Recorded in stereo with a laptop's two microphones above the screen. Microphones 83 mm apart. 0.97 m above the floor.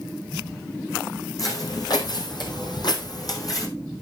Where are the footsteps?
45° left (ahead or behind), 2 m; by 3.7 s 40° left (ahead or behind), 2 m.